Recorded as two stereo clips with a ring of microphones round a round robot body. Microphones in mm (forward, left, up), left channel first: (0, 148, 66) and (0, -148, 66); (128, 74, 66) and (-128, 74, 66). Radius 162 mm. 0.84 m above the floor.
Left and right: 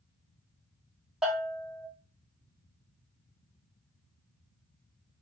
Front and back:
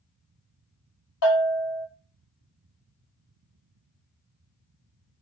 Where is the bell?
Straight ahead, 1.4 m.